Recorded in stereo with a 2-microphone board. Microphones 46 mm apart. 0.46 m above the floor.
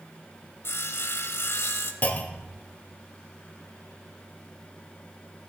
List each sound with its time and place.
0.6 s sawing: 65° left (ahead or behind), 1.0 m
2.0 s a clunk: 40° left (ahead or behind), 1.0 m